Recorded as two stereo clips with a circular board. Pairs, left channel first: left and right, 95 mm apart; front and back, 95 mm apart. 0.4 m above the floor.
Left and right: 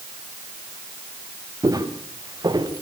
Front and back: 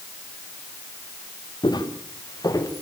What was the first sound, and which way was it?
Footsteps, 40° right.